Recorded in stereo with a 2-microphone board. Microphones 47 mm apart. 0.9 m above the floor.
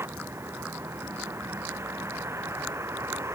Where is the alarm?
I don't hear an alarm.